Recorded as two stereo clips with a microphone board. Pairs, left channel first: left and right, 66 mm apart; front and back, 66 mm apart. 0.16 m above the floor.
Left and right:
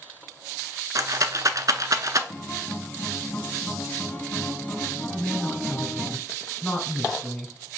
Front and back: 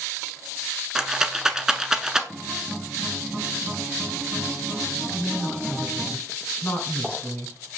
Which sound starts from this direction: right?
A rattle, at 0.9 s.